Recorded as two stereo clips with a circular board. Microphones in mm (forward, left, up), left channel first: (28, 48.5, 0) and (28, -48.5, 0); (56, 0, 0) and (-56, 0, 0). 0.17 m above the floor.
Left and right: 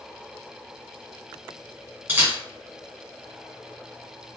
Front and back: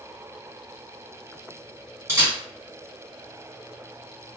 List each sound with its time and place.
2.1 s a camera shutter: 140° right, 1.9 m